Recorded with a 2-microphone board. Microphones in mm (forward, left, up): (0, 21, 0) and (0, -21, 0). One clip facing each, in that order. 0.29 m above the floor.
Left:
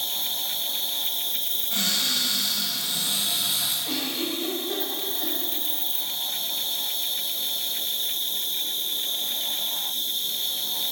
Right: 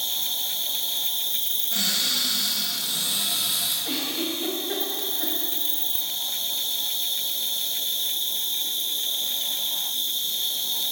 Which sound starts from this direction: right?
An insect, at 0.0 s.